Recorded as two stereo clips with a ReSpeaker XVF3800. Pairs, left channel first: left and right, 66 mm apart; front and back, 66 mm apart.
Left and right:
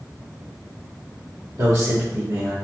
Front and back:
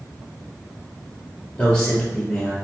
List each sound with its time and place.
1.6 s a man speaking: 70° right, 1.8 m